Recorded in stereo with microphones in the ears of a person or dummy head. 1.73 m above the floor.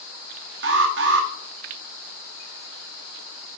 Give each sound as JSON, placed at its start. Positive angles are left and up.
{"t": 0.6, "sound": "an alarm", "side_deg": -50, "distance_m": 0.8}